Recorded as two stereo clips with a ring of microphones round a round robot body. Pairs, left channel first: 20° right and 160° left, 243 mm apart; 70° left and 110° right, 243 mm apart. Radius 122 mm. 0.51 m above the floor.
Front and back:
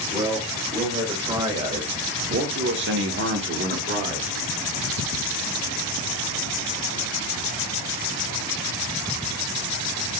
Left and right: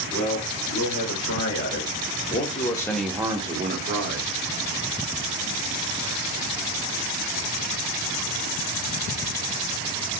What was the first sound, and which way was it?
A man speaking, 80° left.